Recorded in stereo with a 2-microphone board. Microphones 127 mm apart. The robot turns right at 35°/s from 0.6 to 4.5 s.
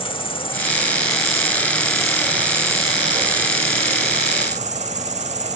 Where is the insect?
130° left, 1.0 m; by 5.5 s 95° right, 1.0 m.